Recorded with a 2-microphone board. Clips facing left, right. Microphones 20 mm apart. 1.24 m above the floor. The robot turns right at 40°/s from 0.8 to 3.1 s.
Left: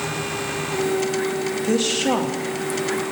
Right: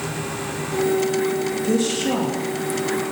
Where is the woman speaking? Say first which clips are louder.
Left 2 dB; 20° left (ahead or behind), 2 m; by 2.4 s 50° left (ahead or behind), 2 m.